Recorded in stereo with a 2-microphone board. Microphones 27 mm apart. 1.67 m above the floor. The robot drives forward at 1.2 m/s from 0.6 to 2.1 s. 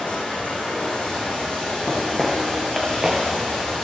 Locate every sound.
0.0 s running water: 50° left (ahead or behind), 4 m; by 3.9 s 35° left (ahead or behind), 5 m
1.9 s footsteps: 15° left (ahead or behind), 1.7 m; by 3.2 s 25° right (ahead or behind), 1.8 m